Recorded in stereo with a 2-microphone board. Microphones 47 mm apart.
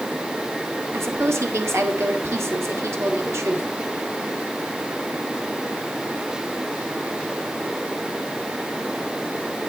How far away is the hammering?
No hammering in this recording.